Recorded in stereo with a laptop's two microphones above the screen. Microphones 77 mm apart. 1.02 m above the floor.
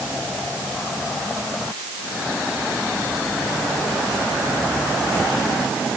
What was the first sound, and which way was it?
Only background noise.